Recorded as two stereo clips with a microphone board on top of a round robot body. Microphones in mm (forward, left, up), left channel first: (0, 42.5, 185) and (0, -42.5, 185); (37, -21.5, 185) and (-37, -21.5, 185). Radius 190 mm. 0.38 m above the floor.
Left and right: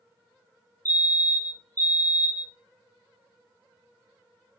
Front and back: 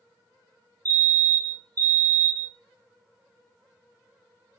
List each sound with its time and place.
0.8 s a fire alarm: 150° left, 4.5 m